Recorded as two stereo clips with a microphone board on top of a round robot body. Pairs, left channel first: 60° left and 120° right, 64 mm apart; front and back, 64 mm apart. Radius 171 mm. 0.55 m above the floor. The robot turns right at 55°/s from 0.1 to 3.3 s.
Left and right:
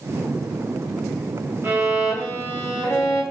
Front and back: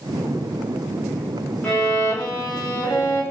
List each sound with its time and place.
1.6 s a violin: 65° right, 1.1 m; by 3.2 s 25° left, 1.1 m